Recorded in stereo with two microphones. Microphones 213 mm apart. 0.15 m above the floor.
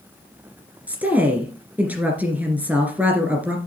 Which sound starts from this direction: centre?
A woman speaking, at 0.9 s.